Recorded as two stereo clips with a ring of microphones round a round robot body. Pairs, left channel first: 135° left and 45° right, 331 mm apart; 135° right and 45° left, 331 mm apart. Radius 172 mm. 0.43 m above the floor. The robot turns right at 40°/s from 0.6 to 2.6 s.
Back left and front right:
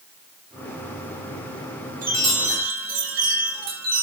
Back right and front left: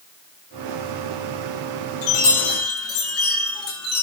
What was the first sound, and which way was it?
A chime, 110° right.